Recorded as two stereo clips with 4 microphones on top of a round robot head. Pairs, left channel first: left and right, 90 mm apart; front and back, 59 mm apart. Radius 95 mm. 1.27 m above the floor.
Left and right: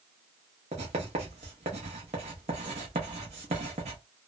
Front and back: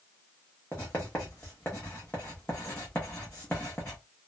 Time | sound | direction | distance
0.7 | writing | 80° right | 0.8 m